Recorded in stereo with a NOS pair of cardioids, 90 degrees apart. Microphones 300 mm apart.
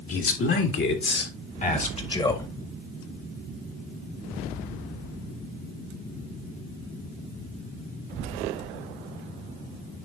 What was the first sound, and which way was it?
A man speaking, 50° left.